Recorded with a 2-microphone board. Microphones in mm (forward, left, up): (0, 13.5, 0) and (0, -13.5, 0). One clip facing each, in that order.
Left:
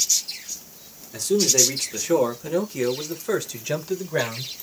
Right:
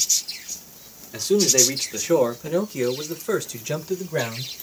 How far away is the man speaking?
About 2.5 m.